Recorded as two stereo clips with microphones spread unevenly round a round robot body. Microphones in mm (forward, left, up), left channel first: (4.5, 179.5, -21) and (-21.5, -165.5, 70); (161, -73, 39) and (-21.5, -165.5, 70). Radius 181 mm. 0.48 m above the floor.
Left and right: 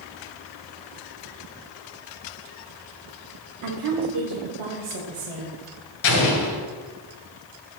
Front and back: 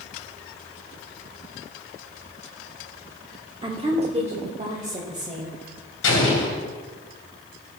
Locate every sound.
3.6 s a woman speaking: 90° right, 1.2 m; by 5.6 s 95° right, 3 m
6.0 s an explosion: 40° left, 2 m